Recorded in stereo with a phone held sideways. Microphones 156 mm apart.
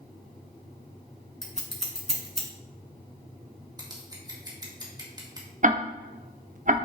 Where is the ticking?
55° right (ahead or behind), 0.6 m.